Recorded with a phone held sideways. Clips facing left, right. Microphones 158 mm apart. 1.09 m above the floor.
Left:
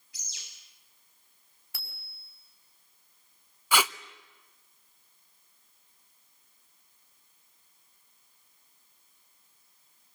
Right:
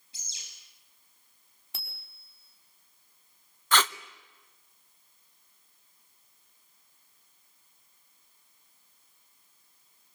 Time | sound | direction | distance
0.1 | a bird | 30° right (ahead or behind) | 8.5 m
1.7 | a bicycle bell | 25° right (ahead or behind) | 5 m
3.7 | tape being pulled | 10° left (ahead or behind) | 0.7 m